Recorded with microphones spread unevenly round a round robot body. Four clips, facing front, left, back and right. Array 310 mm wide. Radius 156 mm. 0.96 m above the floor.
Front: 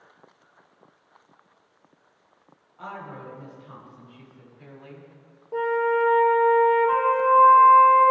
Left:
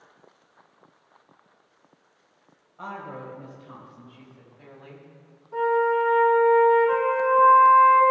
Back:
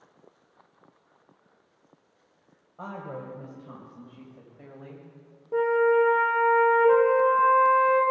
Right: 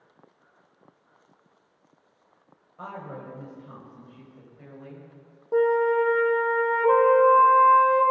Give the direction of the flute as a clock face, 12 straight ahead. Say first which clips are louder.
Right 1 dB, back 2 dB; 4 o'clock.